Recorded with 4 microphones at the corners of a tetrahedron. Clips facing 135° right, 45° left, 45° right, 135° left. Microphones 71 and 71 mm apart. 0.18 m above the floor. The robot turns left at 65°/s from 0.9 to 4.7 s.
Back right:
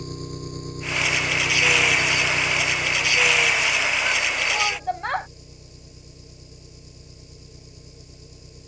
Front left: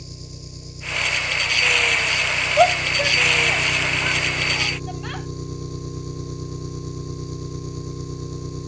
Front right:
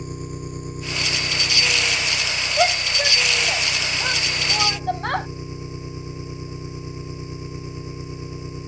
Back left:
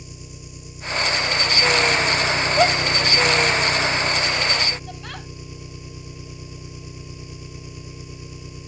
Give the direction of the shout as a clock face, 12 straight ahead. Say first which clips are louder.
Front left 8 dB, even; 10 o'clock.